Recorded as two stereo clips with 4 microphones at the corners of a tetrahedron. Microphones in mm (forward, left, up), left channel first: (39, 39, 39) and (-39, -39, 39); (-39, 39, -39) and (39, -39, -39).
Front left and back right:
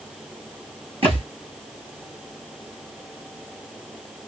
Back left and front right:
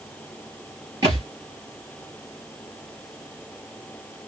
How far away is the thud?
About 4.5 m.